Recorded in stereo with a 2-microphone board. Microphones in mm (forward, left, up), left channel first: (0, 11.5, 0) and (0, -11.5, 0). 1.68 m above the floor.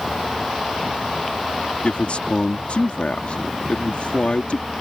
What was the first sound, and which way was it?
A man speaking, 65° left (ahead or behind).